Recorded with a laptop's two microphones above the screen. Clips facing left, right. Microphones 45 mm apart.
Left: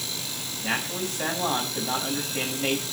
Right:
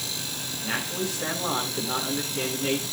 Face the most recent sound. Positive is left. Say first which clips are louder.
# left 1 dB
turn(degrees=55)  # may be behind; listen again after turning